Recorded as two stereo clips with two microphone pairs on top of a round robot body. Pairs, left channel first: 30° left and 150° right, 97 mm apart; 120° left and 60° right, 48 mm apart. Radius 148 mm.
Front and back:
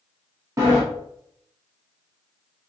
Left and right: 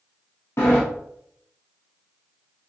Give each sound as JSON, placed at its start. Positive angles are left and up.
{"t": 0.6, "sound": "a sliding door", "azimuth_deg": 150, "distance_m": 0.6}